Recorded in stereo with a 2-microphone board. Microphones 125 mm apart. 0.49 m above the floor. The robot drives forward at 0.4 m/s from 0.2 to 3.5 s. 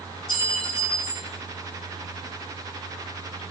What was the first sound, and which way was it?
A clink, 45° left (ahead or behind).